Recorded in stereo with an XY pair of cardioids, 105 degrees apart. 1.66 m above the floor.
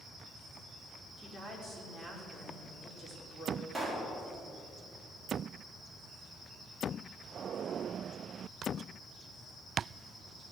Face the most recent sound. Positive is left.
turn(degrees=-5)